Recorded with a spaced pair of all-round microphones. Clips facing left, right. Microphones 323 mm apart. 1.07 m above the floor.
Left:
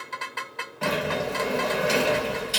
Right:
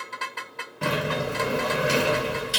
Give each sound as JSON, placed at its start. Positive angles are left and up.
{"t": 0.8, "sound": "a sliding door", "side_deg": -20, "distance_m": 0.6}